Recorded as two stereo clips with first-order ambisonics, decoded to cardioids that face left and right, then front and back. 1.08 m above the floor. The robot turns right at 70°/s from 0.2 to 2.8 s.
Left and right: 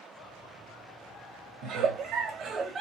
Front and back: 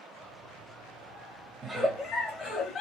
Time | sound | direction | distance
1.6 | a giggle | 110° right | 1.0 m